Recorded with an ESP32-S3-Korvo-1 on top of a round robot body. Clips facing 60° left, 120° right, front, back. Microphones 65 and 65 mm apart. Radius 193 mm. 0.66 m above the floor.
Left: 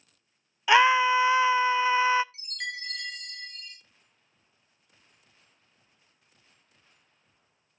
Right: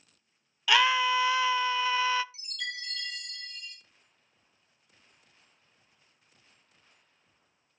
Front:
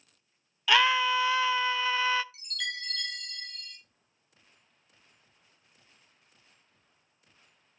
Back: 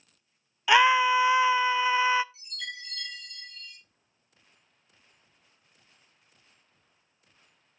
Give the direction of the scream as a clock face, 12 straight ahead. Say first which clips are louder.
Left 5 dB, back 4 dB; 8 o'clock.